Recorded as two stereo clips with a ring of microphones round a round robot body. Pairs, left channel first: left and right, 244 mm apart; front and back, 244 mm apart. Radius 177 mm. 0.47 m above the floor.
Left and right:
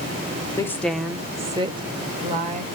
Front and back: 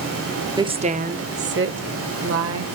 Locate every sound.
0.6 s a woman speaking: 145° left, 0.9 m; by 2.7 s 155° right, 2 m